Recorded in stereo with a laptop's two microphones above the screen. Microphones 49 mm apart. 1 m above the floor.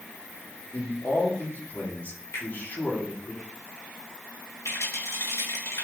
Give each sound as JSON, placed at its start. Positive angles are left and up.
{"t": 0.7, "sound": "a man speaking", "side_deg": 40, "distance_m": 2.5}
{"t": 2.3, "sound": "a finger snap", "side_deg": 50, "distance_m": 4.0}
{"t": 4.7, "sound": "a rattle", "side_deg": 70, "distance_m": 3.5}